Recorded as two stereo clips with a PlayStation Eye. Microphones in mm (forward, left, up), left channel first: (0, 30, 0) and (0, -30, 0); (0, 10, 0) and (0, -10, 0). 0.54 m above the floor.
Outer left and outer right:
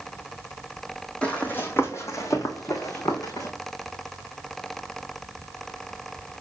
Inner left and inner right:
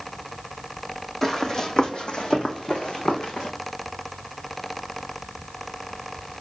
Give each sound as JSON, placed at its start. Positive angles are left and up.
{"t": 1.2, "sound": "running footsteps", "side_deg": 20, "distance_m": 1.6}